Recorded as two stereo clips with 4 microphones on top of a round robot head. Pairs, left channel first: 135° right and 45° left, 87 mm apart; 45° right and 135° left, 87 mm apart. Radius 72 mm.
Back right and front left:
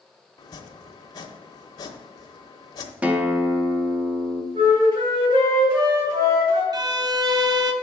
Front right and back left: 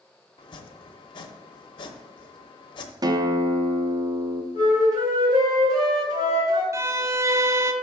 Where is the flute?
85° left, 3 m.